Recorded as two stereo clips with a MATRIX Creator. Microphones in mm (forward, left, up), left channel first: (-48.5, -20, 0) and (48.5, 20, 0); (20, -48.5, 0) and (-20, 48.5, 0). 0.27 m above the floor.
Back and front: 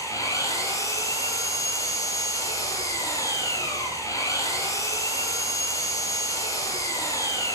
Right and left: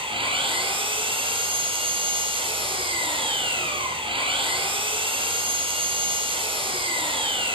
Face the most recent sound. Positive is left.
turn(degrees=145)